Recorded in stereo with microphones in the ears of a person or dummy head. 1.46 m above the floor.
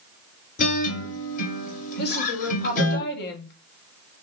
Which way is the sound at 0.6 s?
40° left (ahead or behind).